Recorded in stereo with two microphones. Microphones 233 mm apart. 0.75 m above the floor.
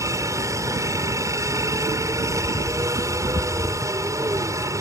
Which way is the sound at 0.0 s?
15° right (ahead or behind).